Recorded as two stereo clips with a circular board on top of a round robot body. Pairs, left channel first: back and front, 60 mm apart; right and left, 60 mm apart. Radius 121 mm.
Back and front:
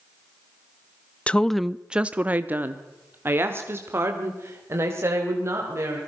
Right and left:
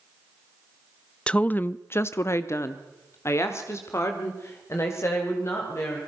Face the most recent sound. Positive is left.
turn(degrees=-45)